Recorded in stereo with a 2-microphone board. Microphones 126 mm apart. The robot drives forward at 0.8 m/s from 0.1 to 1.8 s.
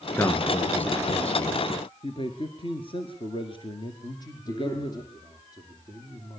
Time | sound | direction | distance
0.2 | a man speaking | 15° left (ahead or behind) | 1.5 m
2.0 | a man speaking | 45° left (ahead or behind) | 2.0 m
4.0 | a man speaking | 35° left (ahead or behind) | 5 m